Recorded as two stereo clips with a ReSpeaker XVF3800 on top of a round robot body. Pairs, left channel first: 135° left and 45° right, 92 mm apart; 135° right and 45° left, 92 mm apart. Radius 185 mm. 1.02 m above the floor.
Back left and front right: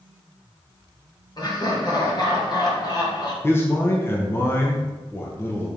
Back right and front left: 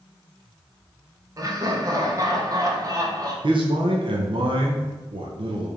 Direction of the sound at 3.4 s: 70° left.